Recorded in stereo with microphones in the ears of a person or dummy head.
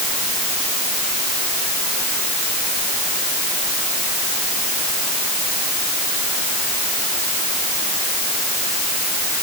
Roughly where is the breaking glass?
No breaking glass in this recording.